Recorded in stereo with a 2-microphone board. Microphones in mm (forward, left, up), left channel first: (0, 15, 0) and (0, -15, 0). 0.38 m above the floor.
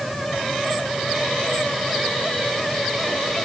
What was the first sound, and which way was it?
Only background noise.